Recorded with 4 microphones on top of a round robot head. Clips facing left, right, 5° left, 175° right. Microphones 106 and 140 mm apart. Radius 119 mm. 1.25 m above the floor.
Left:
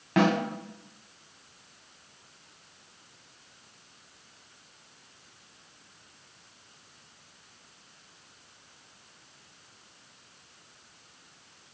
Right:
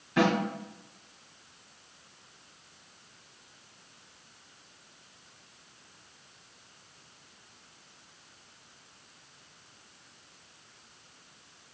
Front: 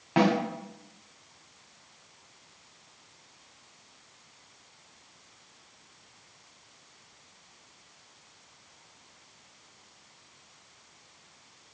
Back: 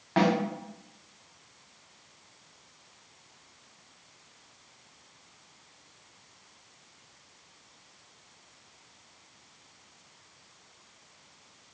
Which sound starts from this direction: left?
A snare drum, at 0.2 s.